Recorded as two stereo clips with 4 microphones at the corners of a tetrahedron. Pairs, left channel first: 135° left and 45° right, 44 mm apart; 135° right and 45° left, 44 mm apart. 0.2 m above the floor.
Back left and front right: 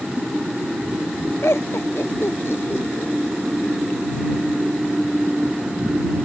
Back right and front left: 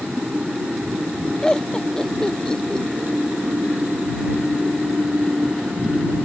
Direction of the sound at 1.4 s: 150° left.